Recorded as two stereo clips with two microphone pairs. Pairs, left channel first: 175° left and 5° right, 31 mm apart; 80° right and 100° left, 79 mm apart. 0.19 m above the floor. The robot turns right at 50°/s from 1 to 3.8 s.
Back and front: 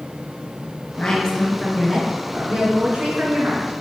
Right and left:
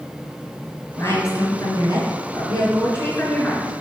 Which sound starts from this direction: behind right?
A woman speaking, at 1.0 s.